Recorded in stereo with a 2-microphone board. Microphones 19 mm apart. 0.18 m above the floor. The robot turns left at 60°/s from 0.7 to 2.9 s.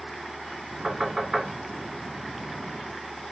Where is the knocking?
35° right (ahead or behind), 1.7 m; by 1.5 s 15° right (ahead or behind), 1.7 m.